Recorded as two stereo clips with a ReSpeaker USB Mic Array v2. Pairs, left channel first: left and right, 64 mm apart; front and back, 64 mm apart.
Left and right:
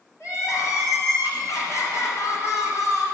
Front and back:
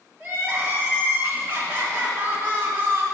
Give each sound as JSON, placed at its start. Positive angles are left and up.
{"t": 0.2, "sound": "crying", "azimuth_deg": 115, "distance_m": 1.6}